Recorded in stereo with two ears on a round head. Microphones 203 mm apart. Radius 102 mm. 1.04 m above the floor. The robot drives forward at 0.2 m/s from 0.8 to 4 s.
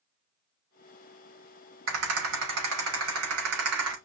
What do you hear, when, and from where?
1.9 s a rattle: 60° right (ahead or behind), 3.5 m; by 4.0 s 65° right (ahead or behind), 3.5 m